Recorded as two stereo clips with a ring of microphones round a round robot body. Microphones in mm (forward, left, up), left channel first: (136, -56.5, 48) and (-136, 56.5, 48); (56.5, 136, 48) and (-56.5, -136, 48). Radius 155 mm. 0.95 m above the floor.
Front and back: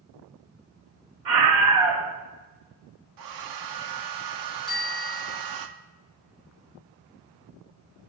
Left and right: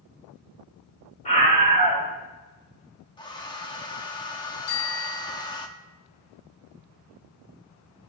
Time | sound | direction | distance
1.2 | a scream | 135° left | 6 m
3.2 | a hair dryer | 145° left | 1.5 m
4.7 | a bicycle bell | 65° left | 4 m